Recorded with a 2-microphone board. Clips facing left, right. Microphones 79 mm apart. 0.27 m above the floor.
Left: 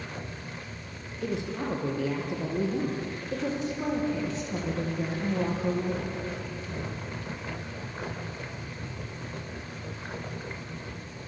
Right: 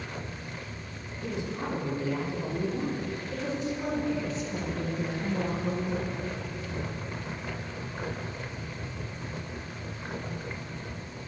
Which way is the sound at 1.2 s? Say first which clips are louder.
Left 2 dB; 75° left (ahead or behind).